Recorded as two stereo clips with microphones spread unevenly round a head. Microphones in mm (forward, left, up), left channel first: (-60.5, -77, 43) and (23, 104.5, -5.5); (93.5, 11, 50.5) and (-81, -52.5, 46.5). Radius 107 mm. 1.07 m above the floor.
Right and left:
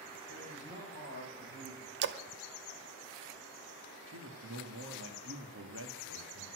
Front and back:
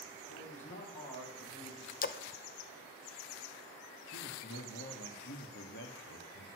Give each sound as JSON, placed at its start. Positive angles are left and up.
{"t": 0.3, "sound": "a man speaking", "azimuth_deg": 25, "distance_m": 6.0}
{"t": 2.0, "sound": "a splash", "azimuth_deg": 60, "distance_m": 0.8}
{"t": 4.1, "sound": "a man speaking", "azimuth_deg": 50, "distance_m": 2.0}